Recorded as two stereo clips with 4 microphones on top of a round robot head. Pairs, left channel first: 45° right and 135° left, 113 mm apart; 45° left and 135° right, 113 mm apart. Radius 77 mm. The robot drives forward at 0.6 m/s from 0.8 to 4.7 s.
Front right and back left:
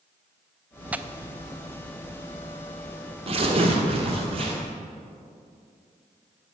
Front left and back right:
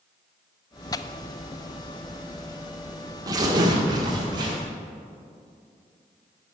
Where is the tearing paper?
65° left, 0.5 m; by 4.5 s 175° left, 2 m.